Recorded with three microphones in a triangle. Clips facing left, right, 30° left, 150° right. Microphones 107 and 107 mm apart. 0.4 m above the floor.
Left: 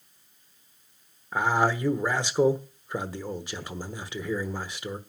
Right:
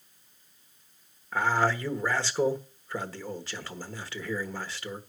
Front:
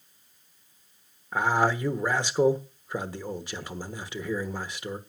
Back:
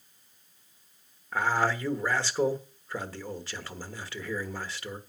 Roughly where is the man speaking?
Ahead left.